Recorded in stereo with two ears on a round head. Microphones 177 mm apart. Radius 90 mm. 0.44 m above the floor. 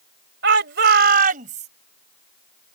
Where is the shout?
60° right (ahead or behind); by 1.7 s 35° right (ahead or behind).